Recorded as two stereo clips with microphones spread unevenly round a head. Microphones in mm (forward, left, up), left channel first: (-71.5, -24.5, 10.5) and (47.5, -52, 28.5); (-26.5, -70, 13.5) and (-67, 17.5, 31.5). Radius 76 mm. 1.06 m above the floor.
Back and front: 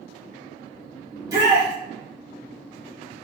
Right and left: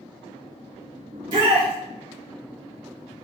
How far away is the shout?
About 3.5 m.